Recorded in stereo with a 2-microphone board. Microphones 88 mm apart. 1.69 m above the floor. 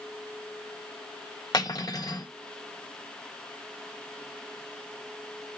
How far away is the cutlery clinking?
About 1.6 m.